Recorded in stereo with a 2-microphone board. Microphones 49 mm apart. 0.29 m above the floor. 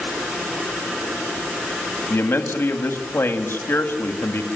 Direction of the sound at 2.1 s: 50° left (ahead or behind).